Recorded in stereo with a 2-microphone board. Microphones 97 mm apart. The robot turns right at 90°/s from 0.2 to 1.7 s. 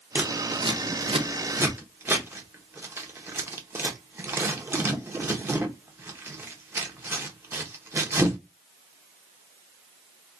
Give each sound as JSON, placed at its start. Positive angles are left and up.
{"t": 0.1, "sound": "scissors", "side_deg": -20, "distance_m": 0.7}